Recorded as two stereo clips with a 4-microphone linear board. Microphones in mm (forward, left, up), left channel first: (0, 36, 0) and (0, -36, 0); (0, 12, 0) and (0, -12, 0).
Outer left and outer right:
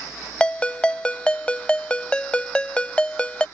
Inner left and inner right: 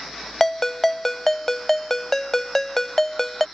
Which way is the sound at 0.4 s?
15° left (ahead or behind).